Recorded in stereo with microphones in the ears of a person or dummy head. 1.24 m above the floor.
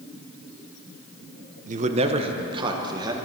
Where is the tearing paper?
I don't hear tearing paper.